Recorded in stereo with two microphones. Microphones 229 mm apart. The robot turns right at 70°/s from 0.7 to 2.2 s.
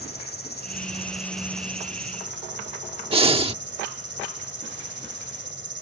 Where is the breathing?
25° right (ahead or behind).